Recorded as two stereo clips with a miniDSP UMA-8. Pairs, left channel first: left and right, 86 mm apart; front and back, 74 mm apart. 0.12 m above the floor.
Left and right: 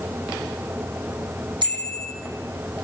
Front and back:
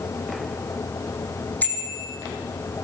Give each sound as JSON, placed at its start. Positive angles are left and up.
{"t": 1.6, "sound": "a bicycle bell", "azimuth_deg": -65, "distance_m": 4.0}